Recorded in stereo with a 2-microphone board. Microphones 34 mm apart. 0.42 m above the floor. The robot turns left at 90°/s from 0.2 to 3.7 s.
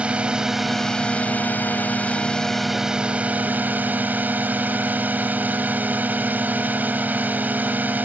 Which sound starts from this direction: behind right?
A drone, at 0.0 s.